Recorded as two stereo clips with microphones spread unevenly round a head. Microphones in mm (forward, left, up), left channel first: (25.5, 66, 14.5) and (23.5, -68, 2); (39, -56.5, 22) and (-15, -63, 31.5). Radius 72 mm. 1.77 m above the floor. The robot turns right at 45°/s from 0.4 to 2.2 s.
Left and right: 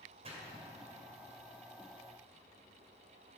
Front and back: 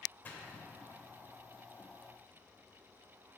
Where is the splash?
50° right, 2.5 m; by 1.0 s 25° right, 2.5 m.